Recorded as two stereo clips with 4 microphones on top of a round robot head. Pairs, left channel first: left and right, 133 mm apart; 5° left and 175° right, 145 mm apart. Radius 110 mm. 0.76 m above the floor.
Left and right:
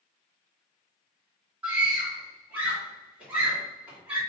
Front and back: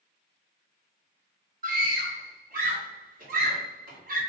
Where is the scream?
170° right, 1.9 m.